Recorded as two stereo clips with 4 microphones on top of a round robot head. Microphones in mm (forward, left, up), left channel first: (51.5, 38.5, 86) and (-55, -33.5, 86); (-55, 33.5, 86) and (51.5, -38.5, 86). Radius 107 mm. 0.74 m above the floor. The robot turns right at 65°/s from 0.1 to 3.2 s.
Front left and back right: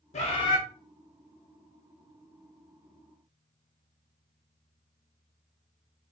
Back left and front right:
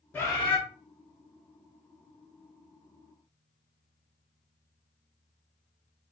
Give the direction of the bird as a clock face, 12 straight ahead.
10 o'clock.